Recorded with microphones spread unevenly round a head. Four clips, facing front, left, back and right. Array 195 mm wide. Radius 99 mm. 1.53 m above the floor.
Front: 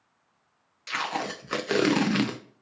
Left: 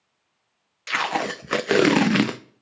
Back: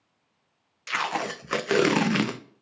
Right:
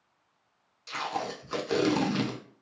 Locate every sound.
0.9 s tape being pulled: 90° left, 0.5 m